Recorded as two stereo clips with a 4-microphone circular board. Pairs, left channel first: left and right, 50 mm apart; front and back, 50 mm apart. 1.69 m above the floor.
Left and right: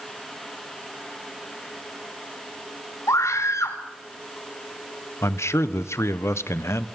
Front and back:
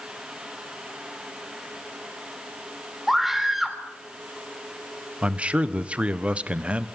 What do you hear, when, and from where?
3.1 s a scream: 95° left, 4.5 m
5.2 s a man speaking: 115° left, 1.2 m